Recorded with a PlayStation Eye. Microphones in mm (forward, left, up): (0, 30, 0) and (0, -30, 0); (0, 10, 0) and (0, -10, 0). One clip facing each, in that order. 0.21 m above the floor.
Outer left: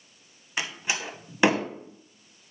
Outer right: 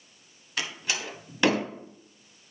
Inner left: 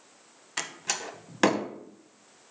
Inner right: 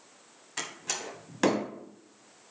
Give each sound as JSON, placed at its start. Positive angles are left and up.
{"t": 0.6, "sound": "a door slam", "side_deg": 20, "distance_m": 0.8}